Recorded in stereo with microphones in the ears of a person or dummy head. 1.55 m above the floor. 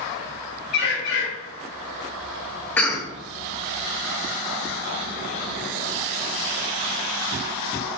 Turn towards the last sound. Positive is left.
turn(degrees=10)  # may be behind; listen again after turning